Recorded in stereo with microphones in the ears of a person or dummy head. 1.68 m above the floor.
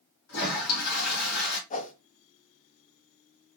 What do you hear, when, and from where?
0.3 s a toilet flushing: 70° left (ahead or behind), 0.9 m
1.7 s a whoosh: 35° left (ahead or behind), 0.5 m